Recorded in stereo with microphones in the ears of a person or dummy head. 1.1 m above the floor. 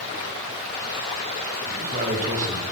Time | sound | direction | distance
1.7 | a man speaking | 45° right (ahead or behind) | 5.5 m